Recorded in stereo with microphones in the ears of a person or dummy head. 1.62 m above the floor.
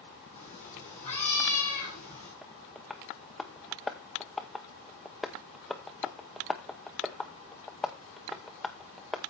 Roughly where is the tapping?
Centre.